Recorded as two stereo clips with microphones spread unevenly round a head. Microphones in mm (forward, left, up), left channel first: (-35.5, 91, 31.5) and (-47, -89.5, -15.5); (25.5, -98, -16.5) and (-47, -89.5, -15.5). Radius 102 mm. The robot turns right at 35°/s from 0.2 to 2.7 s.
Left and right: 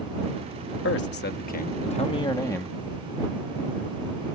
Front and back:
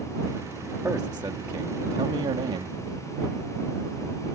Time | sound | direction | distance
0.8 | a man speaking | 100° left | ?